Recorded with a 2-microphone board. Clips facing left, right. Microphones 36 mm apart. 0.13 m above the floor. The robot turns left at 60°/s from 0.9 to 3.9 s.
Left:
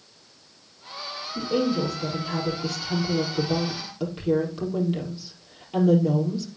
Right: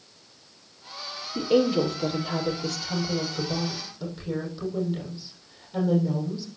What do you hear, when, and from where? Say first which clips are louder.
1.4 s a woman speaking: right 3 dB; 105° right, 4.5 m; by 6.5 s 105° left, 4.5 m